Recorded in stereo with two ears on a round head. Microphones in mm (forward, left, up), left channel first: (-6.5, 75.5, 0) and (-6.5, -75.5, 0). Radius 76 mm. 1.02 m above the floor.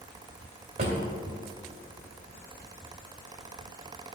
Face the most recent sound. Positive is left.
turn(degrees=-50)  # may be behind; listen again after turning